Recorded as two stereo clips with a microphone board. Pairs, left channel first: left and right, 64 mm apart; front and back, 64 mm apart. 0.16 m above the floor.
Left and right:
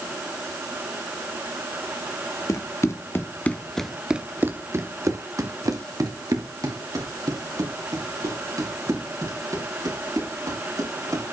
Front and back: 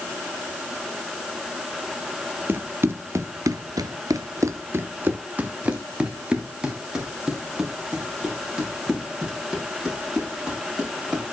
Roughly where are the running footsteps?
Behind left.